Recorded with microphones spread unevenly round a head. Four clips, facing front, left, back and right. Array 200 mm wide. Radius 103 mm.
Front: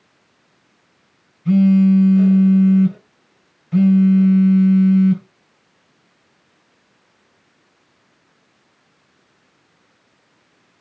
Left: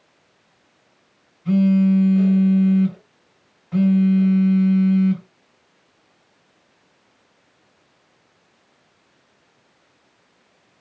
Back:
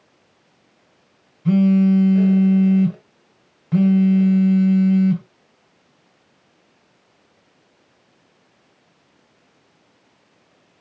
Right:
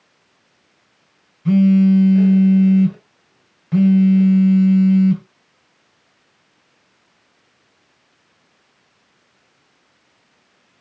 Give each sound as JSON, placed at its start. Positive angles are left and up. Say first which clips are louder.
{"t": 1.4, "sound": "a phone buzzing", "louder": "right 4 dB, front 2 dB", "azimuth_deg": -135, "distance_m": 3.5}